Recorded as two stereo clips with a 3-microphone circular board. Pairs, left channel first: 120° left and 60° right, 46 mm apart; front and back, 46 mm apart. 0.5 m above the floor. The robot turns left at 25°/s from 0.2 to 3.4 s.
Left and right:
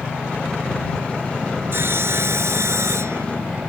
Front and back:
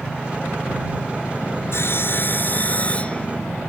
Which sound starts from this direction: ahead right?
Sawing, at 1.7 s.